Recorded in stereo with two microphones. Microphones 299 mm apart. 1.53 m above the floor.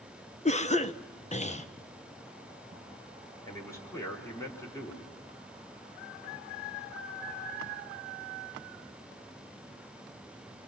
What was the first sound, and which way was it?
A cough, 25° left (ahead or behind).